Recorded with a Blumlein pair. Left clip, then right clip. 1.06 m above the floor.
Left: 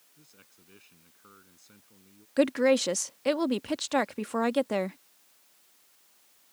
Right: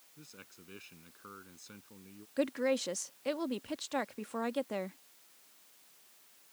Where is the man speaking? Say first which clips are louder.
Right 6 dB; 15° right.